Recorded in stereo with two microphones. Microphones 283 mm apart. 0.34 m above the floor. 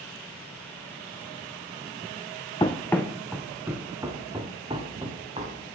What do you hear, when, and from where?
2.6 s running footsteps: 15° left (ahead or behind), 1.1 m; by 5.6 s 20° right (ahead or behind), 3 m